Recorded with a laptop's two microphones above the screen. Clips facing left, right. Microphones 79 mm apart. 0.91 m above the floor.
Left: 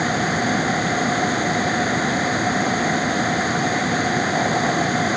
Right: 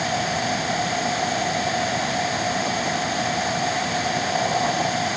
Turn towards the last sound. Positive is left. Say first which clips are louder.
# left 3 dB
turn(degrees=35)  # may be behind; listen again after turning